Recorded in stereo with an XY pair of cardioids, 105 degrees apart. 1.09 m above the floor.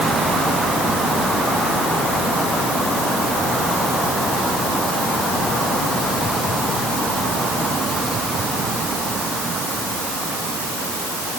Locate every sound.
Only background noise.